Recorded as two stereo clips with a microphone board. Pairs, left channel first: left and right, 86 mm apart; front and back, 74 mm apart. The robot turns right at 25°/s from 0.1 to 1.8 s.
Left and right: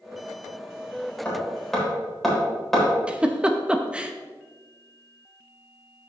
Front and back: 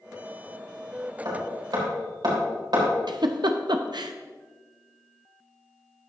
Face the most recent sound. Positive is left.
turn(degrees=-165)